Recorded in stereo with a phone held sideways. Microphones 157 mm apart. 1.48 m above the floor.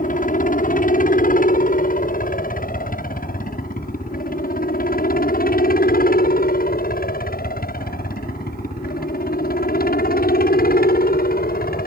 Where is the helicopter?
60° left (ahead or behind); by 11.9 s 70° left (ahead or behind).